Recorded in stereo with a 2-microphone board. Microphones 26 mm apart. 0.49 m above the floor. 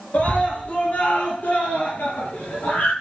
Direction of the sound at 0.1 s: 80° left.